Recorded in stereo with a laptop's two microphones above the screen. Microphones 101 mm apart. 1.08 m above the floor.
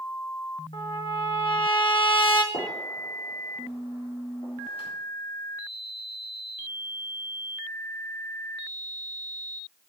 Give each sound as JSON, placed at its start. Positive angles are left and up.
{"t": 0.7, "sound": "a trumpet", "side_deg": 60, "distance_m": 1.1}
{"t": 2.5, "sound": "a gunshot", "side_deg": 80, "distance_m": 3.0}